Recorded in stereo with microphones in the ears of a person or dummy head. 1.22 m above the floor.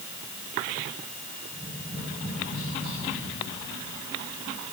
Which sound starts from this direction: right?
Tapping, at 1.5 s.